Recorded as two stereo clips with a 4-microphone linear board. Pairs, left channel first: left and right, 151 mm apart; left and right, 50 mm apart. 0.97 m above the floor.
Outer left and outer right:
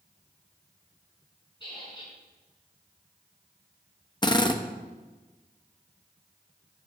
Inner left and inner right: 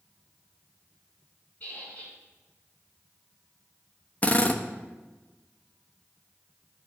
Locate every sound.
1.6 s a squeak: 30° left (ahead or behind), 6 m
4.2 s a drill: 30° left (ahead or behind), 0.9 m